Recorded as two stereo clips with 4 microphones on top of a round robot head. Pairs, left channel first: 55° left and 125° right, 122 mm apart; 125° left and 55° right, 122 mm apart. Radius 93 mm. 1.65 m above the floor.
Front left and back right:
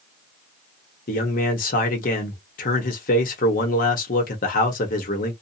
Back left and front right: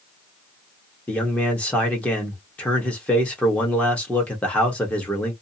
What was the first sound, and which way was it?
A man speaking, 45° left.